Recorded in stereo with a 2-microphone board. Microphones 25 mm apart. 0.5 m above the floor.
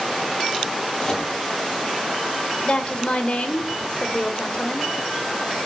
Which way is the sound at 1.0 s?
25° left (ahead or behind).